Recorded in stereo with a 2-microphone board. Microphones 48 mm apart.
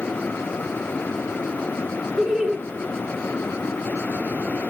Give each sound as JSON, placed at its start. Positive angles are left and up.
{"t": 2.2, "sound": "laughter", "side_deg": -15, "distance_m": 1.7}